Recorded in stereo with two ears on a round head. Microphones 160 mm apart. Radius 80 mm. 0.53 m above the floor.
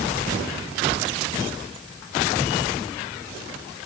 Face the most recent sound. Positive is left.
No sound to turn to.